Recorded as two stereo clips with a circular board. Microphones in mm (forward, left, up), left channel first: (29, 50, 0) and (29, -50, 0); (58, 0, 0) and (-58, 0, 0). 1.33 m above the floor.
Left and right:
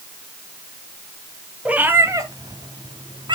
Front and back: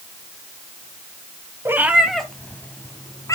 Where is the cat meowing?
155° right, 1.2 m; by 3.4 s 60° right, 2 m.